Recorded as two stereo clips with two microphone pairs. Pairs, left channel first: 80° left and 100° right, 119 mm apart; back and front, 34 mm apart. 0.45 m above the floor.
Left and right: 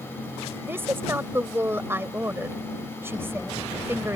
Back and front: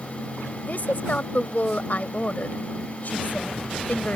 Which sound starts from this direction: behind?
A woman speaking, at 0.6 s.